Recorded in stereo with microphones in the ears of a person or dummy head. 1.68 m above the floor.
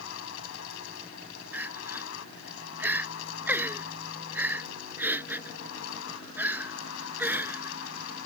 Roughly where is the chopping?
I don't hear chopping.